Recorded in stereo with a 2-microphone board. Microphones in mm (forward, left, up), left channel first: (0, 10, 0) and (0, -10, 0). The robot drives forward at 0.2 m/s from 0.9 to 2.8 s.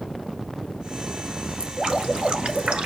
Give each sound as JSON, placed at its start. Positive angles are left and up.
{"t": 1.6, "sound": "dripping", "side_deg": -55, "distance_m": 1.3}